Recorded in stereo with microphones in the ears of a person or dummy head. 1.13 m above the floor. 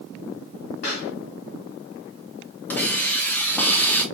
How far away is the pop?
About 2.0 m.